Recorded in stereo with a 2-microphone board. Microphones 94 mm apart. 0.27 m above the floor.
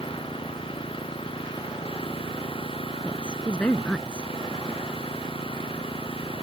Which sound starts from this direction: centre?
A woman speaking, at 3.0 s.